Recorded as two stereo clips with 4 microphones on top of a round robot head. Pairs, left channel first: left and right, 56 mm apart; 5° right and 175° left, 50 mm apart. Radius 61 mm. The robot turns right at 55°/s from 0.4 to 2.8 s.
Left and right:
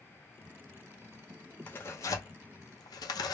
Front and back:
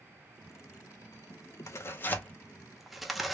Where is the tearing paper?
25° left, 0.6 m; by 3.3 s 90° left, 0.6 m.